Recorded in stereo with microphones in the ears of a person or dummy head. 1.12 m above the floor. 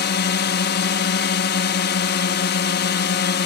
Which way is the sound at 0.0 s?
55° left (ahead or behind).